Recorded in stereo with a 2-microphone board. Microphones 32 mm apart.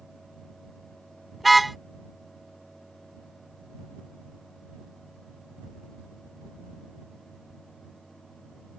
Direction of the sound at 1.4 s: Centre (ahead or behind).